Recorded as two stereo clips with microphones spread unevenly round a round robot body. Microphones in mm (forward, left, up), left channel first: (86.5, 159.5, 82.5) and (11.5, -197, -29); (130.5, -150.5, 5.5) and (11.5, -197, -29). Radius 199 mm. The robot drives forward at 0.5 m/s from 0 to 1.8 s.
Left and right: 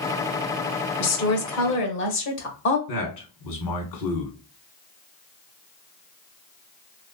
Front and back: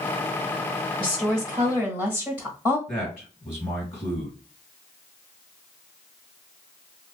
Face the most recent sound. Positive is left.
turn(degrees=105)